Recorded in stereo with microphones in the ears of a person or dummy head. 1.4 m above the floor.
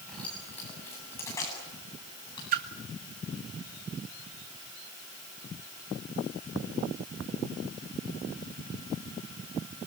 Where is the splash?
55° right (ahead or behind), 1.9 m.